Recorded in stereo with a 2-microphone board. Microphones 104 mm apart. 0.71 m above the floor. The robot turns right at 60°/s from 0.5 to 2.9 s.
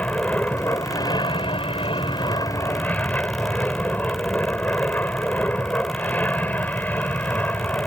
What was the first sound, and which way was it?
An aircraft, 20° left.